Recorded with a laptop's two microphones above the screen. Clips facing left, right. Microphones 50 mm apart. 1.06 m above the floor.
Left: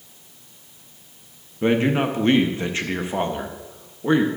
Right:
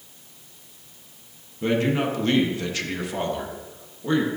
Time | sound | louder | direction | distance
1.6 | a man speaking | left 3 dB | 30° left (ahead or behind) | 1.0 m